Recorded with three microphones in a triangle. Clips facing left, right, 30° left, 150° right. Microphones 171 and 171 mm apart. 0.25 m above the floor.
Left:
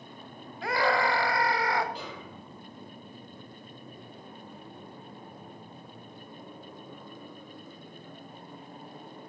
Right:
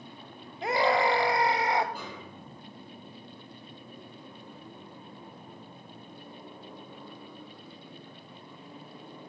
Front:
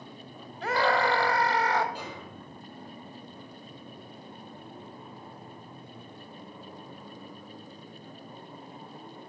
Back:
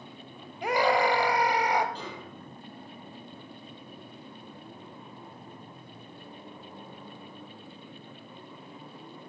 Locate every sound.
0.6 s a scream: 100° right, 1.0 m
1.9 s a snare drum: 50° right, 6.5 m